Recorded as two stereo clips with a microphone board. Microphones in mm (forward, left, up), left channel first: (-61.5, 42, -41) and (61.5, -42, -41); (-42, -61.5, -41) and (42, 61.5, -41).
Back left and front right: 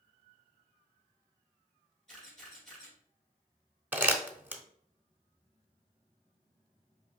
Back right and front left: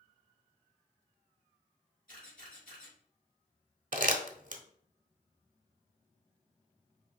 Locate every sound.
2.1 s a camera shutter: 125° right, 2.5 m
3.9 s crumpling: 40° left, 0.6 m